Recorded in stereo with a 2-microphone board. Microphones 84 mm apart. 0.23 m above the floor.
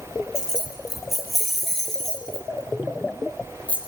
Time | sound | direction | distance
0.3 | keys jangling | 10° right (ahead or behind) | 4 m